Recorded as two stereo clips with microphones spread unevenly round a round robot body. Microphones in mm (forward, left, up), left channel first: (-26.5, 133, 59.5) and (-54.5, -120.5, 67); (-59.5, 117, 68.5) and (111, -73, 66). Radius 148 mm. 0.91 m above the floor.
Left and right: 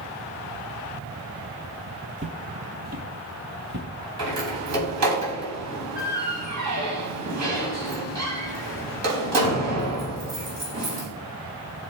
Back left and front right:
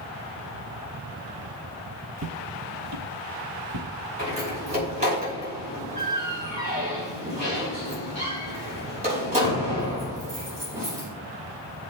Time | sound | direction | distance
2.2 | footsteps | 40° right | 1.2 m
4.2 | a door slam | 115° right | 5 m